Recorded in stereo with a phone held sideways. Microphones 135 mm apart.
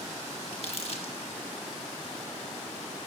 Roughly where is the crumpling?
Left.